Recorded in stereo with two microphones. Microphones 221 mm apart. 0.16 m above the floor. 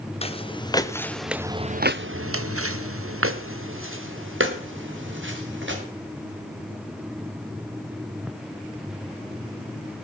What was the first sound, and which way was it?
Footsteps, 25° left (ahead or behind).